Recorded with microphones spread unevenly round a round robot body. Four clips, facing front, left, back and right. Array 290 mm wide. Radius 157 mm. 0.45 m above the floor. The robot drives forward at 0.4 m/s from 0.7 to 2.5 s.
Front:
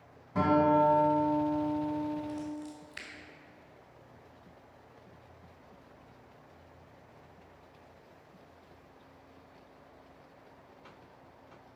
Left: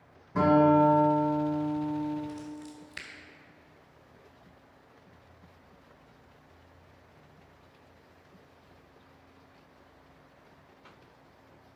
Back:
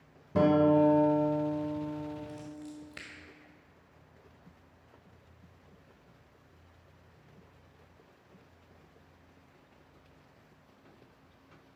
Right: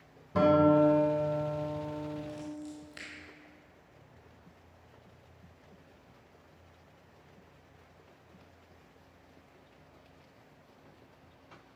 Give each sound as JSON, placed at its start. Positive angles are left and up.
{"t": 0.3, "sound": "a guitar", "azimuth_deg": -165, "distance_m": 2.0}
{"t": 2.3, "sound": "scissors", "azimuth_deg": 160, "distance_m": 1.9}